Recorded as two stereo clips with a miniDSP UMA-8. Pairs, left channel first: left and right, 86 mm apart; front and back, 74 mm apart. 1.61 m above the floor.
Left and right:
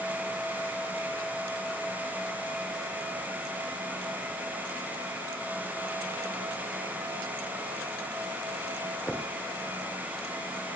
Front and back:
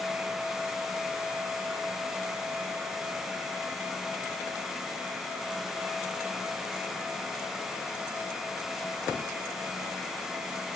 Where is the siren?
I don't hear a siren.